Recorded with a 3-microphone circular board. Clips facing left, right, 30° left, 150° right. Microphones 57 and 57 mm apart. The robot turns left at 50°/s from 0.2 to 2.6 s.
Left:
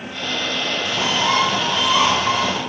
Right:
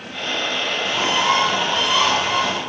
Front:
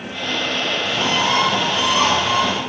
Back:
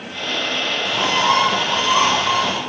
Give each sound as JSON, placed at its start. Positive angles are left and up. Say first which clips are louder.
{"t": 0.8, "sound": "a bird", "louder": "right 1 dB, back 3 dB", "azimuth_deg": -145, "distance_m": 1.5}